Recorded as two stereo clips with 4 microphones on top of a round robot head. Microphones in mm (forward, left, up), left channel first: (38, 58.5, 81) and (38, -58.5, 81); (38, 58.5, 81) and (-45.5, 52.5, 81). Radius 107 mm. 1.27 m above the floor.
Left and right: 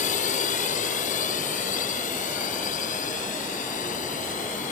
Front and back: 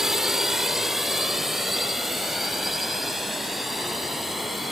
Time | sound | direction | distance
0.0 | a drone | 100° left | ?